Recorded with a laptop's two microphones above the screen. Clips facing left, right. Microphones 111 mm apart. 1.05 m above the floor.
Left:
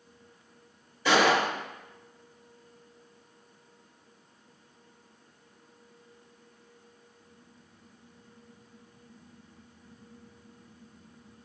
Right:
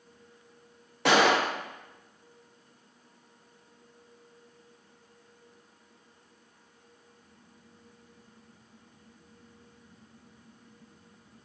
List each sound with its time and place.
1.1 s a gunshot: 70° right (ahead or behind), 0.6 m